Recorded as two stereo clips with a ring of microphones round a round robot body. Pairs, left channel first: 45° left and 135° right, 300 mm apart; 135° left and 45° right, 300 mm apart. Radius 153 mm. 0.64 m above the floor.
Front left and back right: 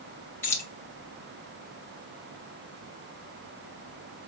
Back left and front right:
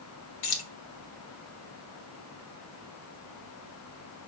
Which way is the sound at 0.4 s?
125° left.